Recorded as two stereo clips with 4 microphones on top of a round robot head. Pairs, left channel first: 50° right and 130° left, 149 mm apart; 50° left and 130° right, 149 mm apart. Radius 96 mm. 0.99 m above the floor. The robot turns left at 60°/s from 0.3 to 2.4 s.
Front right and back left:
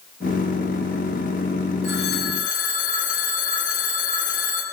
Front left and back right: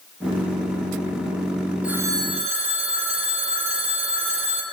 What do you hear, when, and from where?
1.8 s a phone ringing: 50° right, 3 m; by 4.6 s 80° right, 3 m